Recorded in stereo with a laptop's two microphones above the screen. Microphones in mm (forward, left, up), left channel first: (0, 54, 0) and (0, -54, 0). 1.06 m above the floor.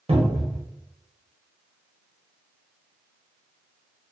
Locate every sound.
0.1 s a cupboard door: 55° right (ahead or behind), 1.0 m